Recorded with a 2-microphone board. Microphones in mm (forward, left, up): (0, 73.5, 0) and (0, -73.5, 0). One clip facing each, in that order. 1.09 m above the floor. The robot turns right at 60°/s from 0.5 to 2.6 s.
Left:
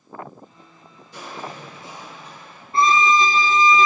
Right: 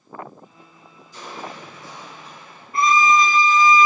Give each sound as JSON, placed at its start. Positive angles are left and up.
{"t": 1.1, "sound": "crushing", "azimuth_deg": 115, "distance_m": 5.0}
{"t": 2.7, "sound": "a violin", "side_deg": 30, "distance_m": 0.6}